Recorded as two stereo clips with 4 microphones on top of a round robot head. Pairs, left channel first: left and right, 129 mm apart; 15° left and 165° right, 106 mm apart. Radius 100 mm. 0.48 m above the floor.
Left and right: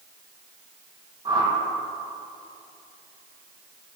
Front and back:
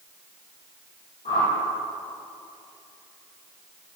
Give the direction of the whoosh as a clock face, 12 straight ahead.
1 o'clock.